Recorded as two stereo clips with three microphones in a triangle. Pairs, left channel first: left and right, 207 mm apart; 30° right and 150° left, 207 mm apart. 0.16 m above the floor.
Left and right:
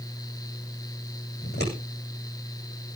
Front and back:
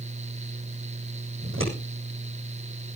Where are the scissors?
130° left, 8.5 m.